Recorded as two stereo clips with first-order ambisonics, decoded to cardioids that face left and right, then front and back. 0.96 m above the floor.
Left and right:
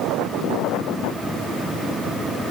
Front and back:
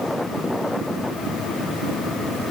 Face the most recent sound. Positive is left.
No sound to turn to.